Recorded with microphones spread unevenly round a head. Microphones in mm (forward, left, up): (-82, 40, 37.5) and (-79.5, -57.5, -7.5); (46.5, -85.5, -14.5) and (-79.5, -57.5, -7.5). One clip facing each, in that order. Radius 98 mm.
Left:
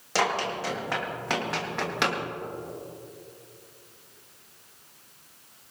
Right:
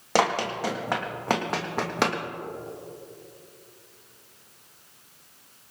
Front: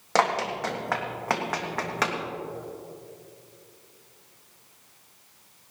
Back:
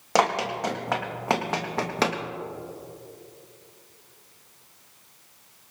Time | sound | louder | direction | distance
0.1 | running footsteps | right 3 dB, back 1 dB | 120° right | 3.5 m